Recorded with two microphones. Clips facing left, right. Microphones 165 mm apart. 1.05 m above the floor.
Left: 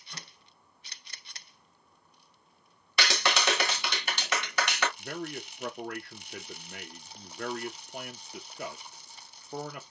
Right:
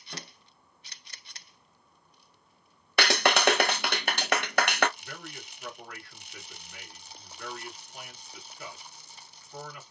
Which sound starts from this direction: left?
A man speaking, at 5.0 s.